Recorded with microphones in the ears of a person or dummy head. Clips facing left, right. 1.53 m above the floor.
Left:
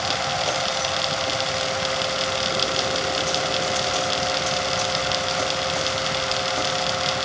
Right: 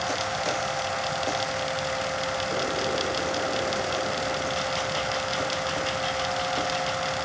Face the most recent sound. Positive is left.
No sound to turn to.